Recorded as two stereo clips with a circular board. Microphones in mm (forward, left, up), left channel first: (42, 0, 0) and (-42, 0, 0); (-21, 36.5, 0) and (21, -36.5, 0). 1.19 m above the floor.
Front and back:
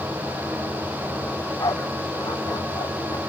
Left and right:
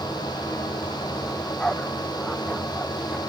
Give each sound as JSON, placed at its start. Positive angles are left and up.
{"t": 1.3, "sound": "a dog barking", "azimuth_deg": 40}